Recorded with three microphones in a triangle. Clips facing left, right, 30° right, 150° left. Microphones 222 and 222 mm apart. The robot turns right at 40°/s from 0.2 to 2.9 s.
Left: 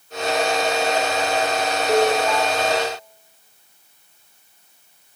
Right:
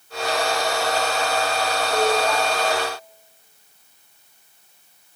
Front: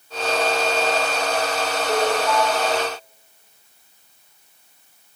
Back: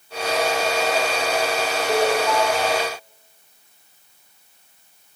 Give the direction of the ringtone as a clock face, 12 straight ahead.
10 o'clock.